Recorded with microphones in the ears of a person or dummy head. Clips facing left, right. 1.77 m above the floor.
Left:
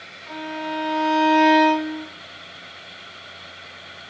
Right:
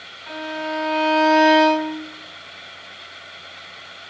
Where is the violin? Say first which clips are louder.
Right 2 dB; 10° right (ahead or behind), 1.6 m.